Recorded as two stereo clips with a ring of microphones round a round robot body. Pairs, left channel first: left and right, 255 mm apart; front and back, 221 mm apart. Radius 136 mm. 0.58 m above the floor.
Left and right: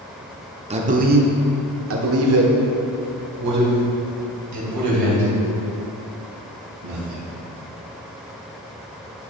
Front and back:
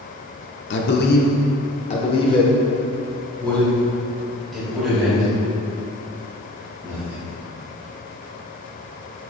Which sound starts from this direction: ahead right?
A man speaking, at 0.7 s.